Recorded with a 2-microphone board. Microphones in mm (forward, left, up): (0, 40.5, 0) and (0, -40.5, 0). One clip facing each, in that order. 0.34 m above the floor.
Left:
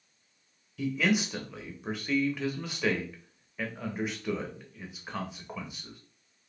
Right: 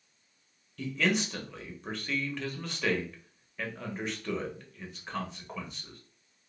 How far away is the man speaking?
About 1.0 m.